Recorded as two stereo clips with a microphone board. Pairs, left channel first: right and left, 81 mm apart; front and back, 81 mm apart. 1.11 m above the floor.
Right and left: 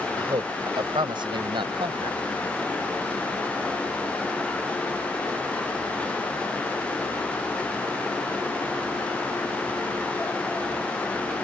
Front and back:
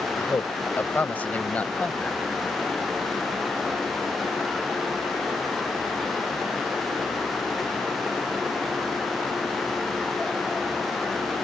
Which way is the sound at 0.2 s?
60° left.